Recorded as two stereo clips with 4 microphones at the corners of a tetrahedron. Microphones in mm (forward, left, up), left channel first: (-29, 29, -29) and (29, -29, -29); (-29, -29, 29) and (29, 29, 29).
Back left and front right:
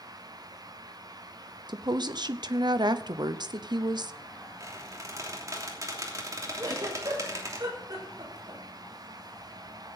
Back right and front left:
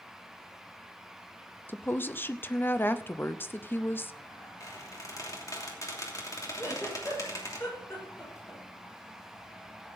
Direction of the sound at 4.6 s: 90° right.